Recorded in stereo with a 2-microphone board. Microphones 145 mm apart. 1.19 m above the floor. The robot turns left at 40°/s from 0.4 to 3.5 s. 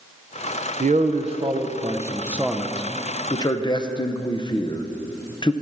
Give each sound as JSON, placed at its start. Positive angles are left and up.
{"t": 0.8, "sound": "a man speaking", "side_deg": -60, "distance_m": 0.6}